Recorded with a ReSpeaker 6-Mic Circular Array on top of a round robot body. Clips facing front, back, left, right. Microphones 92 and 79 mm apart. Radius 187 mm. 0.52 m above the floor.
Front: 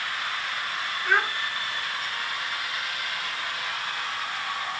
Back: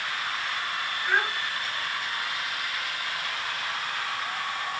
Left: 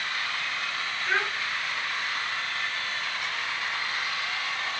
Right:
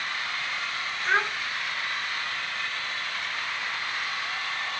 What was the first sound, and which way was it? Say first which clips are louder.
A child speaking: front 2 dB, right 3 dB; 35° right.